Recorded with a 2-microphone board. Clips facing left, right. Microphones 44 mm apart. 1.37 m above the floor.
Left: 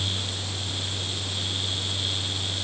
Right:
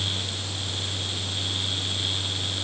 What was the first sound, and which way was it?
Only background noise.